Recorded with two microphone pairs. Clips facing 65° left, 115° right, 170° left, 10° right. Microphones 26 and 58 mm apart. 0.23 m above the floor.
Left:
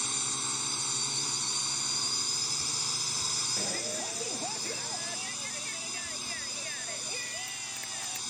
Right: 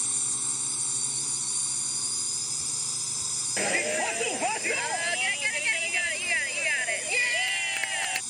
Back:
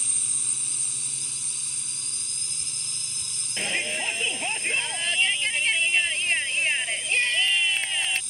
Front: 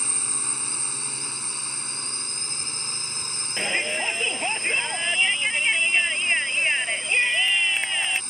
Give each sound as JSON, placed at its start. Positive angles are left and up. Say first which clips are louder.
{"t": 0.0, "sound": "a drone", "louder": "even, front 7 dB", "azimuth_deg": 5}
{"t": 3.6, "sound": "a shout", "louder": "right 7 dB, front 3 dB", "azimuth_deg": -80}